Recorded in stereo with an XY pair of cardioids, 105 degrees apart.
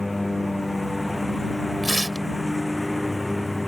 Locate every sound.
0.0 s a lawn mower: 15° left
1.8 s tearing paper: straight ahead